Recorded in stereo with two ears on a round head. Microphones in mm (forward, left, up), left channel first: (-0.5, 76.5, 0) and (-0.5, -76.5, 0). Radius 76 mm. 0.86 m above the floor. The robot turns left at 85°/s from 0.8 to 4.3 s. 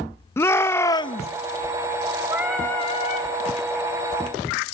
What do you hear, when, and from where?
0.4 s a shout: 160° left, 0.6 m; by 1.3 s 120° left, 0.6 m
2.3 s singing: 155° right, 4 m; by 3.3 s 115° left, 4 m